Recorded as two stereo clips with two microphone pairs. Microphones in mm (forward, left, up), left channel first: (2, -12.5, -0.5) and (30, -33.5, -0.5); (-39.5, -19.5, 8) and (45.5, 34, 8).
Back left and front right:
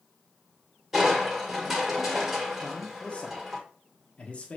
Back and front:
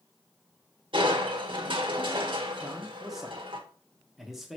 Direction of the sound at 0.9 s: 45° left.